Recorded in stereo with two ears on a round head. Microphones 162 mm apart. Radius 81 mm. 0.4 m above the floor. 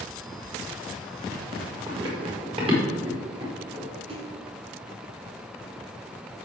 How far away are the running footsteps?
About 4.5 m.